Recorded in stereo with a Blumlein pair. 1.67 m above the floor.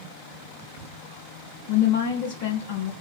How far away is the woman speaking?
About 0.8 m.